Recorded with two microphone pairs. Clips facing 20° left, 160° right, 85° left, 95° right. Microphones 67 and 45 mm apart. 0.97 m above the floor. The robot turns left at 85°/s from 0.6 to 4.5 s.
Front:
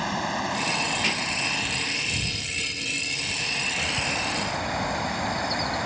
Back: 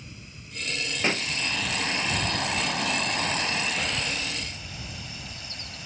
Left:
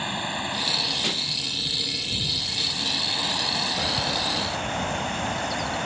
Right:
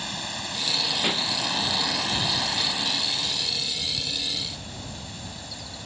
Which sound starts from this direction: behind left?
A bird, at 3.8 s.